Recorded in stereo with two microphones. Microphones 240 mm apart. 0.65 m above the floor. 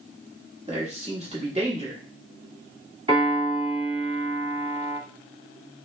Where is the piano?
20° right (ahead or behind), 1.9 m.